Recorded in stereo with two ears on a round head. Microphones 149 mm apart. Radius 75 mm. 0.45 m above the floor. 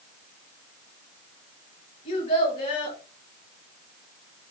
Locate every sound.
2.0 s a child speaking: 30° left (ahead or behind), 3 m